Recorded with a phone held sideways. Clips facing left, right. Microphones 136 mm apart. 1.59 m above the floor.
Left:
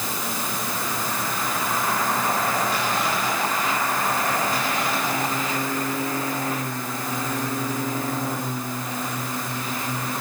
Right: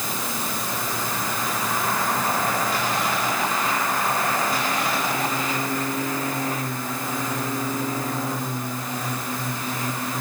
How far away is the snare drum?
No snare drum in this recording.